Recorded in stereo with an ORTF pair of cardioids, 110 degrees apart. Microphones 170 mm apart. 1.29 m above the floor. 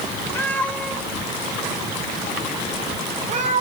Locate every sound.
0.3 s a cat meowing: 15° left, 1.7 m; by 3.6 s 50° right, 2.5 m